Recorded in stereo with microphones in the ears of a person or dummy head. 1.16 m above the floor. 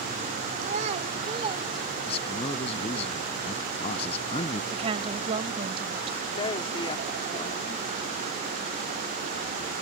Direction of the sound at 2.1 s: 40° left (ahead or behind).